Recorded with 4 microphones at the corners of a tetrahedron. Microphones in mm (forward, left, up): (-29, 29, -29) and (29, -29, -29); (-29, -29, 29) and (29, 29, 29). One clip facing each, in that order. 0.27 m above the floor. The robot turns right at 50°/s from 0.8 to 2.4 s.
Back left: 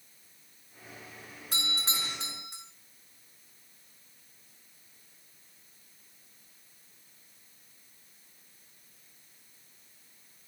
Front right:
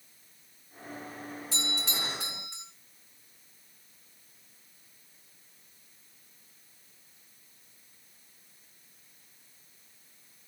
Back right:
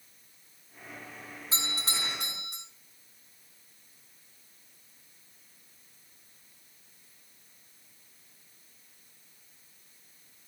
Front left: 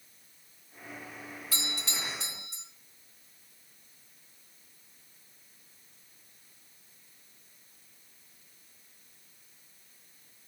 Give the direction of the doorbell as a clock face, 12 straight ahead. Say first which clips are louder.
Back left 1 dB, back right 3 dB; 7 o'clock.